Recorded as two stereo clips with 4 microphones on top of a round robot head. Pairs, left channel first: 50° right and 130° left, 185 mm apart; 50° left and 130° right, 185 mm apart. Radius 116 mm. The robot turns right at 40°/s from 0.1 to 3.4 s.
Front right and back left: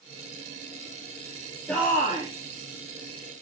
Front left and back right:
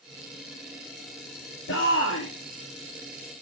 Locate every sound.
1.7 s a shout: 35° left, 3 m; by 2.3 s 60° left, 3 m